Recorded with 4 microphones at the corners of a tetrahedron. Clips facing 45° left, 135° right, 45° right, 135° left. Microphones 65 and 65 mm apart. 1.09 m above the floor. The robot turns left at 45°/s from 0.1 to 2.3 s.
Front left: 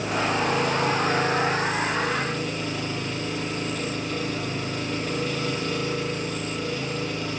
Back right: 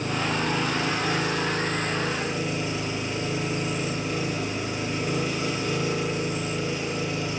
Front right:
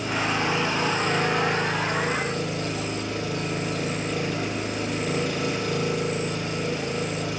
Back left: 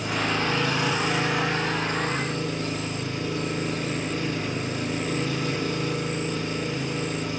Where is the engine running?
45° left, 5 m; by 7.4 s 55° right, 5 m.